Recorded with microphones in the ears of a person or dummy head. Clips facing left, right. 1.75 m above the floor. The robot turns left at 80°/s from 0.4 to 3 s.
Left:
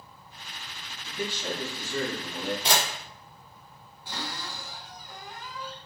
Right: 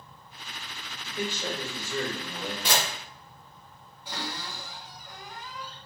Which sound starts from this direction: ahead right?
A man speaking, at 1.1 s.